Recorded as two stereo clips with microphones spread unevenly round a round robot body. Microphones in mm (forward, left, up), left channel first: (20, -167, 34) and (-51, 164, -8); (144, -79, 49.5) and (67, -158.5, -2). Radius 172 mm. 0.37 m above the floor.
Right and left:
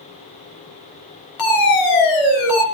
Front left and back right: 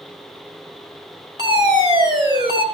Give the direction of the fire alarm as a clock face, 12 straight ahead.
4 o'clock.